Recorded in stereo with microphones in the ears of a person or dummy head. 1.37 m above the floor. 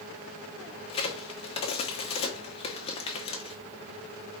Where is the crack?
35° left (ahead or behind), 0.9 m.